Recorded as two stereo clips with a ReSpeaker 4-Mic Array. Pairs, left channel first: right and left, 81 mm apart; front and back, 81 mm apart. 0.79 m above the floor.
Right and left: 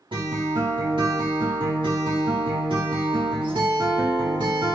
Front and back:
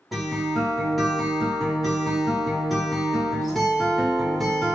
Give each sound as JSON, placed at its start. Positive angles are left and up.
{"t": 0.1, "sound": "a guitar", "azimuth_deg": 90, "distance_m": 0.9}